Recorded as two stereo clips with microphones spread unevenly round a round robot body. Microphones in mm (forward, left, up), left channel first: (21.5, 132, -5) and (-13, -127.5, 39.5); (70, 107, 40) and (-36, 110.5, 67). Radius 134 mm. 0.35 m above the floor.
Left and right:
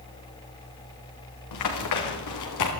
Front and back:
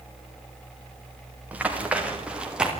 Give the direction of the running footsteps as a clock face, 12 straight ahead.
9 o'clock.